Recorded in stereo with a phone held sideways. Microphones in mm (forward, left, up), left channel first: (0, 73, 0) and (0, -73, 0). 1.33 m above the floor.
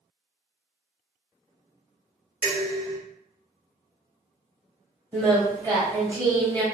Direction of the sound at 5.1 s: 25° right (ahead or behind).